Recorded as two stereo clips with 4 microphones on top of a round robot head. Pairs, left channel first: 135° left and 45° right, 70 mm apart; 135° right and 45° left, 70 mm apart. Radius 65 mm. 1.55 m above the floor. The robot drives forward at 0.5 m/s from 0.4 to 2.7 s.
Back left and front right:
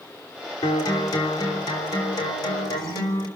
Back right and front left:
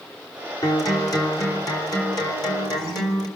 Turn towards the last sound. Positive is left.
turn(degrees=180)